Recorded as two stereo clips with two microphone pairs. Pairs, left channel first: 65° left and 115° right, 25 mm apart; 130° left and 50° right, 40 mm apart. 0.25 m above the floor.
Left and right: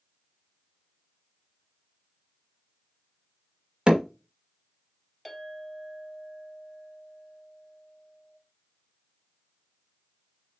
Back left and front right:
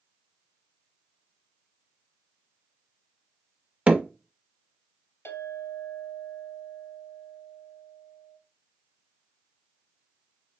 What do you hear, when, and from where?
3.9 s hammering: 90° right, 0.9 m
5.2 s a clink: 150° left, 2.5 m